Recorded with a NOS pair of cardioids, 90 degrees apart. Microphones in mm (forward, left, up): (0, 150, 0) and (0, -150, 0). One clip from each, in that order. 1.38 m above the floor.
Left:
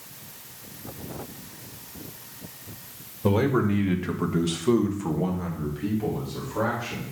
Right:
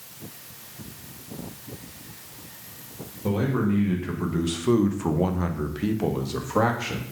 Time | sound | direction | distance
3.2 | a man speaking | 40° left | 1.6 m